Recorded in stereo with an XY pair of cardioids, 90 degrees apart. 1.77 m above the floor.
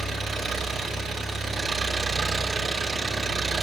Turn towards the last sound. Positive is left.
turn(degrees=-55)